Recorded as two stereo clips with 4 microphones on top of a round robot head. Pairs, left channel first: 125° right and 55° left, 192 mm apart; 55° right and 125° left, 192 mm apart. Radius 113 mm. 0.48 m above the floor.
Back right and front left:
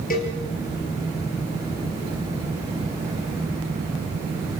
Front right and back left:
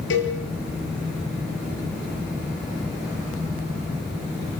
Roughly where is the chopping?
No chopping in this recording.